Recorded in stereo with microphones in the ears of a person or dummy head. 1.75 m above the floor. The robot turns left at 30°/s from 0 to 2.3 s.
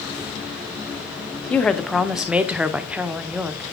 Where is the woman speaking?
10° left (ahead or behind), 0.7 m; by 3.6 s 5° right (ahead or behind), 0.7 m.